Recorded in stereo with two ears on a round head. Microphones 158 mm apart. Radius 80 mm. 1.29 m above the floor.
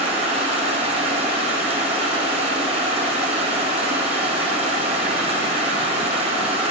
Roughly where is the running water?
Right.